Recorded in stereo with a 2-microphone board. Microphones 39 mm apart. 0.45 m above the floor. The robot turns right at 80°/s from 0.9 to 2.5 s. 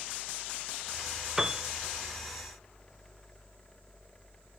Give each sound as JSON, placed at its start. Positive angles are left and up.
{"t": 1.4, "sound": "a piano", "side_deg": -10, "distance_m": 0.9}